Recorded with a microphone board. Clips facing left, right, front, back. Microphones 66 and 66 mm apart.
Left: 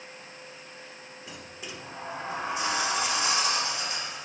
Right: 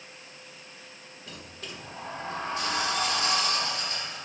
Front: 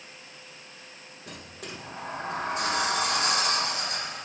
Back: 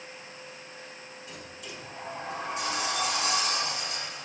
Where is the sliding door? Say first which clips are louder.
Even, front 4 dB; 15° left, 1.1 m.